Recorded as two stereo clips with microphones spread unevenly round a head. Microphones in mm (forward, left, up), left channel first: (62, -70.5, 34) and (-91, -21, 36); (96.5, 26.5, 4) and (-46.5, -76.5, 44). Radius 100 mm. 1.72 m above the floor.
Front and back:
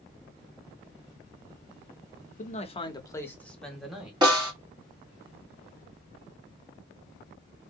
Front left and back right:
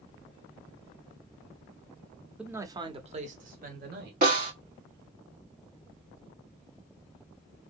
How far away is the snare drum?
About 1.8 m.